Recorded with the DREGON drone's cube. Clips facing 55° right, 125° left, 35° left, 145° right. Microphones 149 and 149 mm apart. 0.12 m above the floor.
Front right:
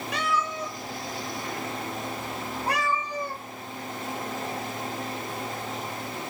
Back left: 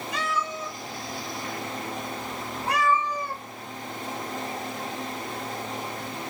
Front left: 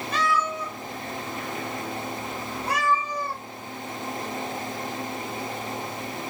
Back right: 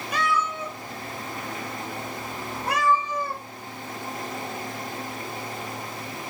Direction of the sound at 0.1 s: 65° right.